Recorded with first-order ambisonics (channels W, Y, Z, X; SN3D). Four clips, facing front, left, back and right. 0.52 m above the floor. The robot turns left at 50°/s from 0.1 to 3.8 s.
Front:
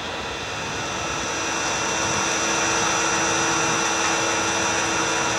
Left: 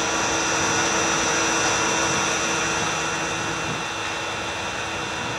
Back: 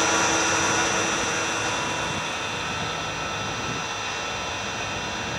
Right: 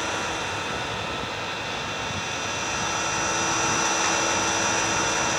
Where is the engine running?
145° left, 8 m; by 5.4 s 40° right, 8 m.